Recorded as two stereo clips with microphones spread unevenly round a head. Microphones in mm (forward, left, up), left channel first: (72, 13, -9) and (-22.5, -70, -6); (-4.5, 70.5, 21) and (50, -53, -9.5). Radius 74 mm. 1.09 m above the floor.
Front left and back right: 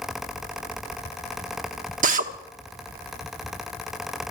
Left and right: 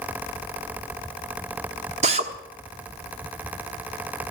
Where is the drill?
120° right, 1.1 m.